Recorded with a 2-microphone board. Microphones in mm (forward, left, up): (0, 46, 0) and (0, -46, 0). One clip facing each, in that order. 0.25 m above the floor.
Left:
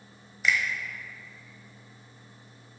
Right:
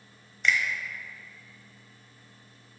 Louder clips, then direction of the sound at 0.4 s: Even; 5° left (ahead or behind).